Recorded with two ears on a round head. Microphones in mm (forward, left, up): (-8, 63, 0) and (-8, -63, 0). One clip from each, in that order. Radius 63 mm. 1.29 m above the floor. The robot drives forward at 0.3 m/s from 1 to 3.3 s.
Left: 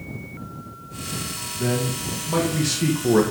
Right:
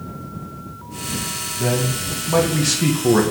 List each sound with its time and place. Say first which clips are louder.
1.6 s a man speaking: right 3 dB; 5° right (ahead or behind), 1.6 m; by 3.2 s 10° right (ahead or behind), 1.2 m